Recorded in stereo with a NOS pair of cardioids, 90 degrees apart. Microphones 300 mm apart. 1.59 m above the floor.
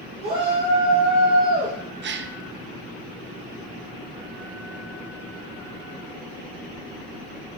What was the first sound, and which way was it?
A shout, 30° right.